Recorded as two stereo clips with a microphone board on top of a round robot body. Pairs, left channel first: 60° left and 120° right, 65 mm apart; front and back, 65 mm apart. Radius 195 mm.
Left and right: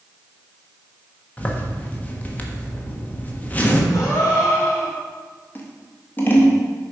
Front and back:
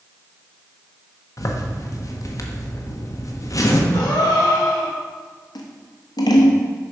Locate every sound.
1.4 s a zipper: straight ahead, 1.3 m
3.9 s a gasp: 15° left, 2 m
5.5 s scissors: straight ahead, 1.0 m